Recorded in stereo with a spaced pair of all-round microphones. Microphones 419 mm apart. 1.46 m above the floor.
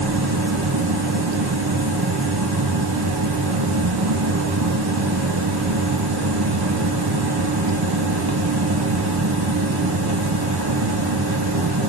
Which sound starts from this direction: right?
A fan, at 0.0 s.